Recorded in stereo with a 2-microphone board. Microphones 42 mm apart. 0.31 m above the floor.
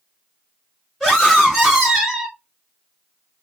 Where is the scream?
5° left (ahead or behind), 3.5 m; by 2.4 s 10° right (ahead or behind), 2 m.